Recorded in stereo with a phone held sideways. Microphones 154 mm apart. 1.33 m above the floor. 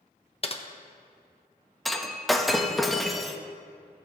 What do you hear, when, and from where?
0.4 s typing on a keyboard: 40° left (ahead or behind), 0.6 m
1.9 s breaking glass: centre (ahead or behind), 0.6 m